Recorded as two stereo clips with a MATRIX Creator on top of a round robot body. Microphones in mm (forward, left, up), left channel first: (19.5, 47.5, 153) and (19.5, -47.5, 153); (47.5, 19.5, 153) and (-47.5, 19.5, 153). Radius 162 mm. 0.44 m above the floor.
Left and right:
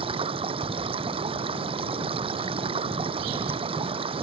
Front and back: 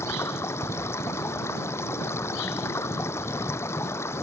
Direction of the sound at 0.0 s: 65° right.